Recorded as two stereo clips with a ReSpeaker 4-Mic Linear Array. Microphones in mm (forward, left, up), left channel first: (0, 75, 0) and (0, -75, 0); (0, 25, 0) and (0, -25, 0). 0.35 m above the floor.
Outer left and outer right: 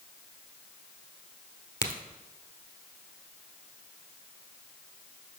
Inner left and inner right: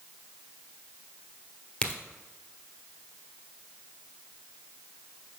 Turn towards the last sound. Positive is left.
turn(degrees=20)  # may be behind; listen again after turning